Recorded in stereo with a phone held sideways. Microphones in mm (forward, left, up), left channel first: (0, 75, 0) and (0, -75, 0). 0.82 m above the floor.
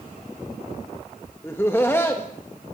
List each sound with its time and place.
1.4 s laughter: 15° left (ahead or behind), 0.8 m